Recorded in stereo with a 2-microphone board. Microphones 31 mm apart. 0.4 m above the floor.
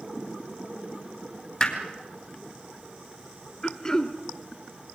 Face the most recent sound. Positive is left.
turn(degrees=20)  # may be behind; listen again after turning